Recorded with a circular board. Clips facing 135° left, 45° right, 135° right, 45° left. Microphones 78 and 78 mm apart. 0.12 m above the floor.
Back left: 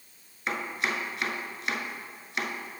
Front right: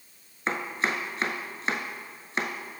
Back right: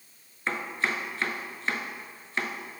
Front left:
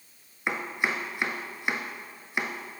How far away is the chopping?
About 0.7 m.